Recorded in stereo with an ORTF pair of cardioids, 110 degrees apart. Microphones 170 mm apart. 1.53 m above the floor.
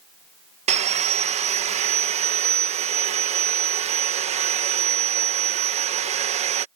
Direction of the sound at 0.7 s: 45° right.